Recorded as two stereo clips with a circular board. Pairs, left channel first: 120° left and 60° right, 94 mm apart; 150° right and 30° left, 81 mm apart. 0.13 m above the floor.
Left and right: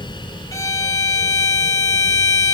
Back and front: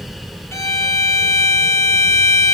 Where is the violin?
165° left, 1.3 m.